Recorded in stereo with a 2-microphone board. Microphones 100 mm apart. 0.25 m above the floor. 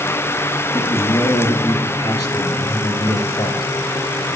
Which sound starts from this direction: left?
A man speaking, at 0.7 s.